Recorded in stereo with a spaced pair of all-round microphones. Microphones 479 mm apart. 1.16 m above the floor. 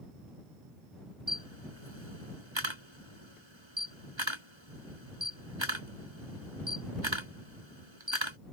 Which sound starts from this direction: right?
A camera shutter, at 1.3 s.